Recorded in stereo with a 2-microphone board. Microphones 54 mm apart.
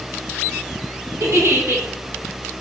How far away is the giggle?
About 2 m.